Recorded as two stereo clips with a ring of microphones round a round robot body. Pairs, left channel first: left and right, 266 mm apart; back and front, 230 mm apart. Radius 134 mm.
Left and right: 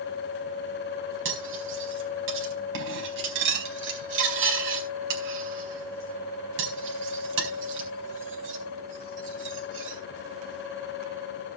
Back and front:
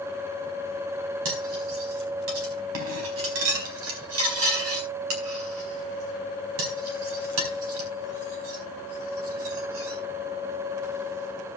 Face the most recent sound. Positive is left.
turn(degrees=-45)